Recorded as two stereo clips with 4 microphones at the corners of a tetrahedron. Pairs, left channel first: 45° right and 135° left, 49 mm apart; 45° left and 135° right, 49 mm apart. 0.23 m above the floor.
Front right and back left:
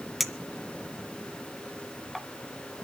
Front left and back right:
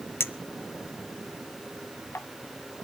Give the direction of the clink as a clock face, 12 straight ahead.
10 o'clock.